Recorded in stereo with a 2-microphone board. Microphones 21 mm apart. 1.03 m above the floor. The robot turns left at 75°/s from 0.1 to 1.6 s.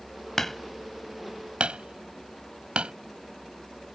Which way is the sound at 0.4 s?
15° left (ahead or behind).